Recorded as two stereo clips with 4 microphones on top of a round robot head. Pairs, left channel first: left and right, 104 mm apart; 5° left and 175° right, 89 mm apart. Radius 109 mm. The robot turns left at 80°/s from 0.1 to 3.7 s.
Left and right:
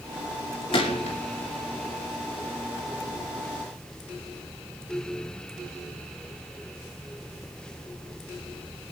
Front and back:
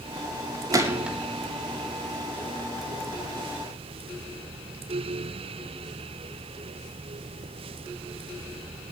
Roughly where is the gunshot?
Behind left.